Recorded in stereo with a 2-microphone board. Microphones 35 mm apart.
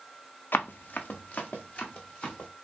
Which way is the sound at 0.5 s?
70° left (ahead or behind).